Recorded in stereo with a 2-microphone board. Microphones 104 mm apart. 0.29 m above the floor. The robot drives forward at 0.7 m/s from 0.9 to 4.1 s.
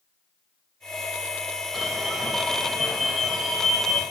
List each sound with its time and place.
1.7 s an alarm: centre (ahead or behind), 2 m